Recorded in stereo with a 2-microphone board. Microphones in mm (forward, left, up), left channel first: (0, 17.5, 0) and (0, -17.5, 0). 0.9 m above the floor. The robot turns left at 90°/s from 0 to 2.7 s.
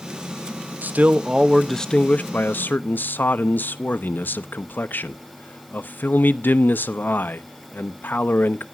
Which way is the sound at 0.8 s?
110° right.